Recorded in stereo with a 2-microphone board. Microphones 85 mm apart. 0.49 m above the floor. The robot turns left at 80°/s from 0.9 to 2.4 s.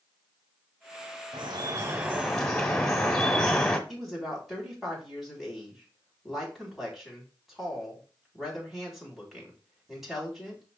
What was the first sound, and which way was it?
Dripping, 100° right.